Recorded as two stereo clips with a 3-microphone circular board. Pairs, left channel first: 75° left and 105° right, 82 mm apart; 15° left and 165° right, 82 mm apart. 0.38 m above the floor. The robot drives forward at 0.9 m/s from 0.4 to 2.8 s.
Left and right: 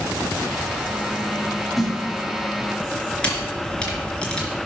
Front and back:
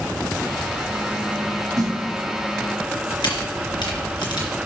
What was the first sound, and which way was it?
A snare drum, 165° left.